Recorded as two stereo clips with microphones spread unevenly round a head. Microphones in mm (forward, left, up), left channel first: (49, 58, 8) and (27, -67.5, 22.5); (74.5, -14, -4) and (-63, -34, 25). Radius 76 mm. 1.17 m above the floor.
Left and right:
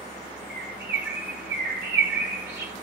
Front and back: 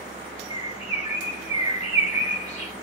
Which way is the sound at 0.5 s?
110° right.